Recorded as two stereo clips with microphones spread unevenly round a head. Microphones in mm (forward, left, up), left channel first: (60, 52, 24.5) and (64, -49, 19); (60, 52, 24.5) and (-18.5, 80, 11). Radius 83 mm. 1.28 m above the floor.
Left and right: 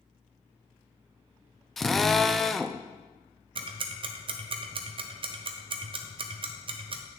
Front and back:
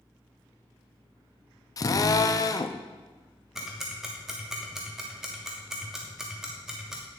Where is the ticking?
120° right, 0.5 m.